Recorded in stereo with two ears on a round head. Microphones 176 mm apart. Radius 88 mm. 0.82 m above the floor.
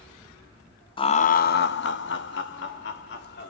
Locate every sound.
1.0 s laughter: 25° left (ahead or behind), 0.5 m; by 3.5 s 60° left (ahead or behind), 1.7 m